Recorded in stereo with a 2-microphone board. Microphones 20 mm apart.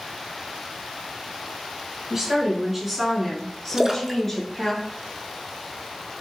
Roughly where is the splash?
Right.